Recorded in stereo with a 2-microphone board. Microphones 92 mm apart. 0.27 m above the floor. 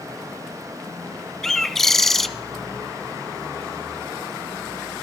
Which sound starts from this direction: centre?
A bird, at 1.4 s.